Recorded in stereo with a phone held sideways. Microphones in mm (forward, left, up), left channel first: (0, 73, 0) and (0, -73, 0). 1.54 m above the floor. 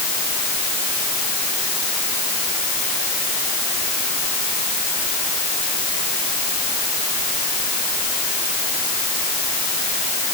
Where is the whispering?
No whispering in this recording.